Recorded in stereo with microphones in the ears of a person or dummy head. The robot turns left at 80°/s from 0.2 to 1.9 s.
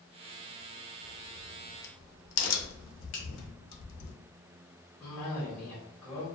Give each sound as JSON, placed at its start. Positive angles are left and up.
{"t": 1.0, "sound": "a crack", "side_deg": 10, "distance_m": 0.6}
{"t": 3.1, "sound": "a finger snap", "side_deg": 40, "distance_m": 0.8}
{"t": 5.0, "sound": "a cough", "side_deg": 5, "distance_m": 1.0}